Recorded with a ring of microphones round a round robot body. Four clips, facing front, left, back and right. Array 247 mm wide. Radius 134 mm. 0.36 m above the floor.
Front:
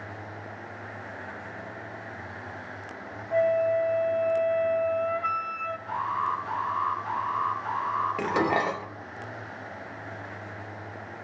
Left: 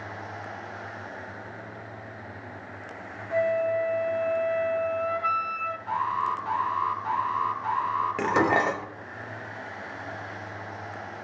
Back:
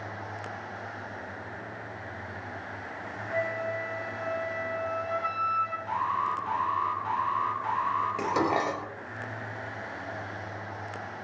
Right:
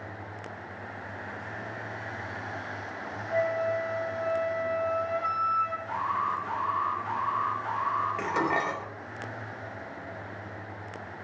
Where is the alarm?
120° left, 3.5 m.